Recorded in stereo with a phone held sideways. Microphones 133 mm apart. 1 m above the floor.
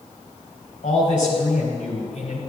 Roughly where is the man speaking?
Left.